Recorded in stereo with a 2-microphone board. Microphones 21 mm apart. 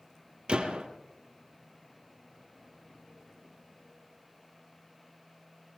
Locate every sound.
0.5 s a gunshot: 50° right (ahead or behind), 4 m